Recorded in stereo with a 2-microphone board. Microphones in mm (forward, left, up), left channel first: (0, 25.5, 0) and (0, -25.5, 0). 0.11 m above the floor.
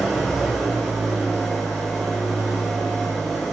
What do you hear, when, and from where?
0.0 s an engine running: 5° right (ahead or behind), 0.8 m